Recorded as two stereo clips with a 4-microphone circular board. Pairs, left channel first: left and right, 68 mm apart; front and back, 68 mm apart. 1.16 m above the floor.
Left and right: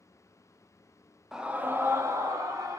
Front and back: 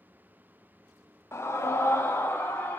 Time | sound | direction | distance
1.3 | a scream | 10° right | 0.5 m